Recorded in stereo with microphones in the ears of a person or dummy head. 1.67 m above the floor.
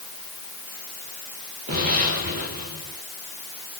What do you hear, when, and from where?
1.7 s an explosion: 55° right (ahead or behind), 7 m